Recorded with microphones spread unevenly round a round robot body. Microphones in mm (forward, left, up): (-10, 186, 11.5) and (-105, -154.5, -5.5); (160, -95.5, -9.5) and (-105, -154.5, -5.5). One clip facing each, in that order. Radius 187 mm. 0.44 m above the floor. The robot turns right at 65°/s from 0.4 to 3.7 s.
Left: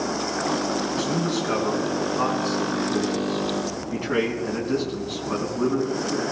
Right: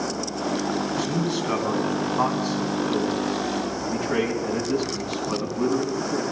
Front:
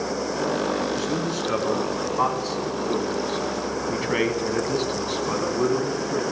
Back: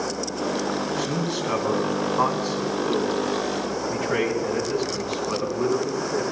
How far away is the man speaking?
About 4 m.